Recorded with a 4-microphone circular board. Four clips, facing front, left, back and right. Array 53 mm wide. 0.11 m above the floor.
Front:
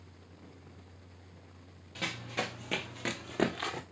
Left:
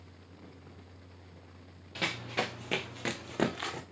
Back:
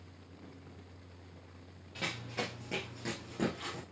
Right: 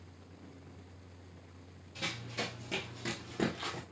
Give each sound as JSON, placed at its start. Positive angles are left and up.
{"t": 1.9, "sound": "running footsteps", "azimuth_deg": 85, "distance_m": 0.8}